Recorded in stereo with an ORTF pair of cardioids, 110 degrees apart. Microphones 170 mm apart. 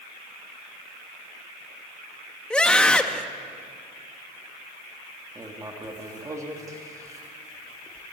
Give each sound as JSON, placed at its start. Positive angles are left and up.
{"t": 2.5, "sound": "a scream", "azimuth_deg": 5, "distance_m": 1.7}
{"t": 5.3, "sound": "writing", "azimuth_deg": -20, "distance_m": 2.5}